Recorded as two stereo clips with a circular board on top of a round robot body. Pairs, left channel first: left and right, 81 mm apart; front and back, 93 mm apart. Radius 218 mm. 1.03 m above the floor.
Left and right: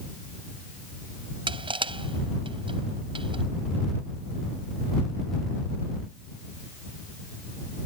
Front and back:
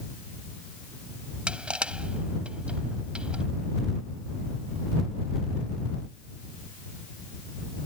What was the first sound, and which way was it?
Crushing, 100° right.